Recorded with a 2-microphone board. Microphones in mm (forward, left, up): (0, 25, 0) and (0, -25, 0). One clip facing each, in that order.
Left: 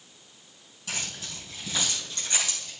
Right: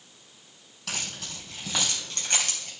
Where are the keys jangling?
75° right (ahead or behind), 4 m; by 2.7 s 65° right (ahead or behind), 3 m.